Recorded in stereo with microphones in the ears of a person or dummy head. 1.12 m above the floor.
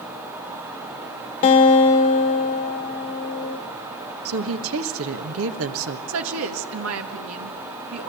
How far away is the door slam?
I don't hear a door slam.